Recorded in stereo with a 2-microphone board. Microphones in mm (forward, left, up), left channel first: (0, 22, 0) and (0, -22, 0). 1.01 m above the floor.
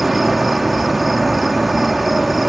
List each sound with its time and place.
0.0 s an insect: 5° right (ahead or behind)